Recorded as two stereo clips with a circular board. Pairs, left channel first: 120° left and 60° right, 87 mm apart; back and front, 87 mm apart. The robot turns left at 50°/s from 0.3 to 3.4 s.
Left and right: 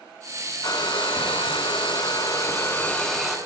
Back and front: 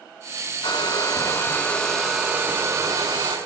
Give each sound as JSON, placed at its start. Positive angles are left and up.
{"t": 0.6, "sound": "a hair dryer", "azimuth_deg": 160, "distance_m": 2.5}